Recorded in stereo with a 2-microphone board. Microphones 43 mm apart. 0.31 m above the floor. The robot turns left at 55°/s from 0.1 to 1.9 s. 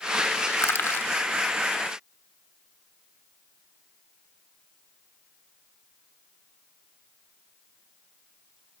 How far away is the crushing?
About 0.7 m.